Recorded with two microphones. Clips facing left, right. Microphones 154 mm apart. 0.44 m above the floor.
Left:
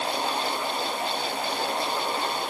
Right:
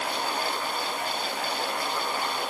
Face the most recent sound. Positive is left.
No sound to turn to.